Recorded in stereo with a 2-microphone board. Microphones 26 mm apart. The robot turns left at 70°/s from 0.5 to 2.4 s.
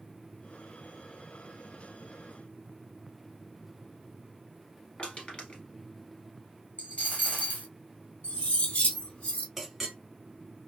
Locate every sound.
5.0 s crushing: 40° left (ahead or behind), 1.5 m
6.8 s a dropped coin: 85° left, 1.0 m
8.2 s cutlery clinking: 55° left (ahead or behind), 1.6 m
9.6 s a clink: 10° right (ahead or behind), 0.9 m